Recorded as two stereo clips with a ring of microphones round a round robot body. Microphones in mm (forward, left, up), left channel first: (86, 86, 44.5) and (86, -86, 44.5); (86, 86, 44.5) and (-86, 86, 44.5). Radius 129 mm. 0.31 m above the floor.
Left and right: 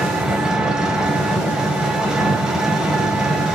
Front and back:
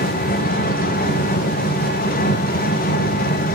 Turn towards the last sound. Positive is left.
turn(degrees=-5)